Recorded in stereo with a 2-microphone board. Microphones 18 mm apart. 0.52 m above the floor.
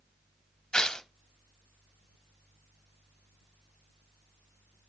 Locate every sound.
0.7 s tearing paper: 50° left (ahead or behind), 0.6 m